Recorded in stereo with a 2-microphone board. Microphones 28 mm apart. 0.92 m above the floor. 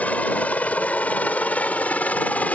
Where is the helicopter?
60° left (ahead or behind).